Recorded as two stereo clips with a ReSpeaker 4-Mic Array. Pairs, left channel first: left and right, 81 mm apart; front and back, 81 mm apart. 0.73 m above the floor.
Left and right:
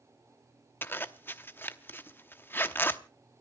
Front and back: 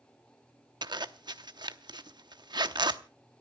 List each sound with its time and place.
0.8 s a zipper: 155° left, 0.8 m